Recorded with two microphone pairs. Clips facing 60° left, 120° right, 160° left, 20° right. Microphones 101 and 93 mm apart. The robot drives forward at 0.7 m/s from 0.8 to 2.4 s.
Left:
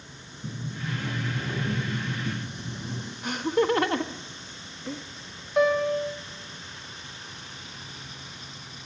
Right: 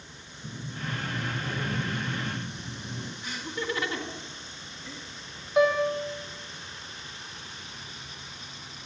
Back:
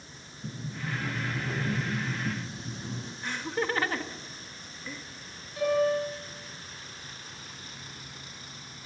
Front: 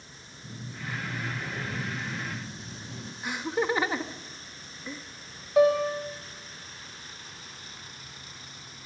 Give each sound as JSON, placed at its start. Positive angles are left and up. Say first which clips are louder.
{"t": 0.4, "sound": "a sliding door", "louder": "left 2 dB, back 3 dB", "azimuth_deg": 110, "distance_m": 7.0}
{"t": 3.2, "sound": "laughter", "louder": "left 11 dB, front 3 dB", "azimuth_deg": 50, "distance_m": 1.4}
{"t": 5.6, "sound": "a piano", "louder": "left 1 dB, front 4 dB", "azimuth_deg": -35, "distance_m": 4.0}